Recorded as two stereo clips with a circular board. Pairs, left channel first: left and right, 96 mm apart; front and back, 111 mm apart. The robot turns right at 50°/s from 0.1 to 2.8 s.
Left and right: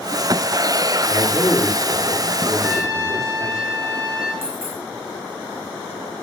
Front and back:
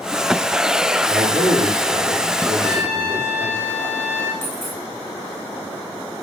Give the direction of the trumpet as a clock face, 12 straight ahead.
5 o'clock.